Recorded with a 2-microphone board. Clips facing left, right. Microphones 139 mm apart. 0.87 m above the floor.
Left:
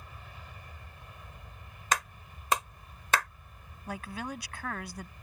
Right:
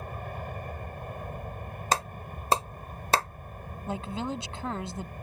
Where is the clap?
35° right (ahead or behind).